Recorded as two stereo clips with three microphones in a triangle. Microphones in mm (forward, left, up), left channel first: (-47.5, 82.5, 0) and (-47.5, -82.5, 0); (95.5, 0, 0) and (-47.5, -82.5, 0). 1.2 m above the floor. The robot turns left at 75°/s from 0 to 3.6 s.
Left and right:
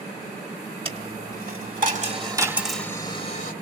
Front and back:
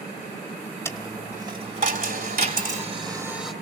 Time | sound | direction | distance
0.8 | a dropped coin | 40° right | 1.7 m